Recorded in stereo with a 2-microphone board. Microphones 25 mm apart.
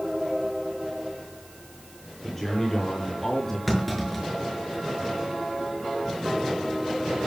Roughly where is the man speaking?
Centre.